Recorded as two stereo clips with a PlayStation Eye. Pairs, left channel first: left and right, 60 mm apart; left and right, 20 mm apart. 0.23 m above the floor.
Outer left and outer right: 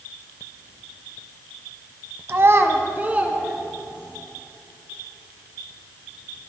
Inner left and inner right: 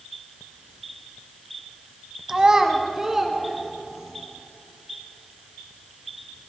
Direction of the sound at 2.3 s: 45° right (ahead or behind).